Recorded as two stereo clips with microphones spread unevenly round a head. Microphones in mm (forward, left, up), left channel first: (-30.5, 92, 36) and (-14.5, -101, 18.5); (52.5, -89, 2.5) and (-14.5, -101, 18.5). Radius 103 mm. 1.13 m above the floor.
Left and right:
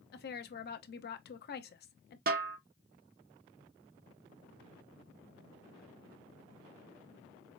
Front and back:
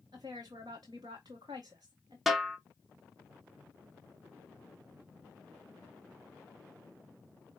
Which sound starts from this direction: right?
A snare drum, at 2.3 s.